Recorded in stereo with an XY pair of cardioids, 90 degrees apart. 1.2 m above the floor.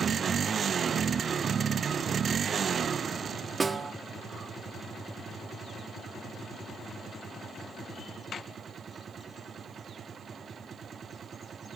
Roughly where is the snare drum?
Ahead right.